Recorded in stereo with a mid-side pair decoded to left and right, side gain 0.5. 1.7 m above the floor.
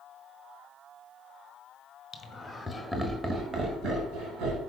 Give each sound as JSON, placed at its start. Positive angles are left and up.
{"t": 2.1, "sound": "laughter", "azimuth_deg": 35, "distance_m": 1.6}